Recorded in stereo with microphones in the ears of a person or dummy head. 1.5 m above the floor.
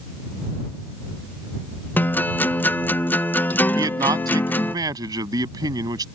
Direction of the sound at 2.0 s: 10° left (ahead or behind).